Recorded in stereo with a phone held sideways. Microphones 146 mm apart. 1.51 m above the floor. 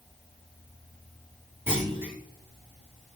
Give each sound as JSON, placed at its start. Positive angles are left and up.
{"t": 1.7, "sound": "a clunk", "side_deg": -15, "distance_m": 5.5}